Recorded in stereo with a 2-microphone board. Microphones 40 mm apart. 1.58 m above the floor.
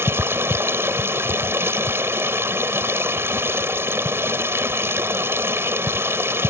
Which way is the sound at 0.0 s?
80° right.